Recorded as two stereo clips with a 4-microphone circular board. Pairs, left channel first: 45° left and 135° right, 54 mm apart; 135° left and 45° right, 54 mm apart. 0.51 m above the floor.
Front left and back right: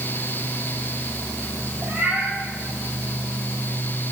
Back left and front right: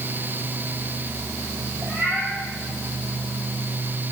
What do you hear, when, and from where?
1.8 s a cat meowing: 75° right, 7.5 m